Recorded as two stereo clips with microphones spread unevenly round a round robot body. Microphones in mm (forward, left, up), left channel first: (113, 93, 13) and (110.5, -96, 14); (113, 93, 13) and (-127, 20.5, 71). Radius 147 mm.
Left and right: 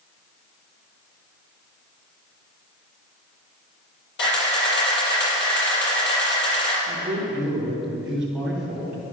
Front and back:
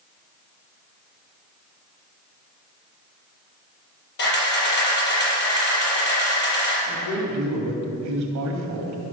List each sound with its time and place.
4.2 s a camera shutter: 65° left, 6 m
6.9 s a man speaking: 175° right, 3 m